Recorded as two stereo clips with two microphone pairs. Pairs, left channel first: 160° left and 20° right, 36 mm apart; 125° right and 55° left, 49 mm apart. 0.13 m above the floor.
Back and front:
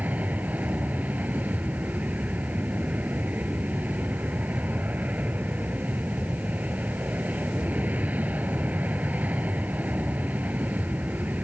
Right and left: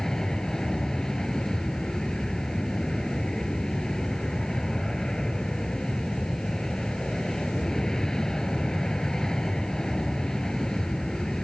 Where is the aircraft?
45° right.